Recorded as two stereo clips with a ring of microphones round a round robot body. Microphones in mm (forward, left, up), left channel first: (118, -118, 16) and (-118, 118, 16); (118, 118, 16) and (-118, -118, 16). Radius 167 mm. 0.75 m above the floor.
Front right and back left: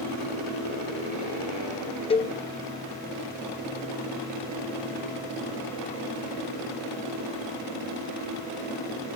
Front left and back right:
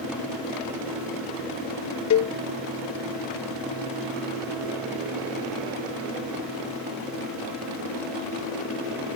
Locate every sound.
2.1 s a cowbell: 20° left